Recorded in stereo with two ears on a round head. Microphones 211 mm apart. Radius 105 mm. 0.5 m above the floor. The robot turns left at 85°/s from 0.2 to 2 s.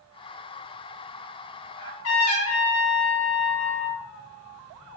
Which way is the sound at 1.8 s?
65° left (ahead or behind).